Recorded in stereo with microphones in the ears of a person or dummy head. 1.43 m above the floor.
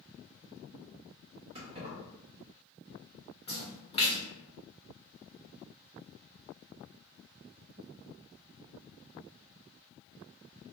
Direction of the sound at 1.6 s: 35° right (ahead or behind).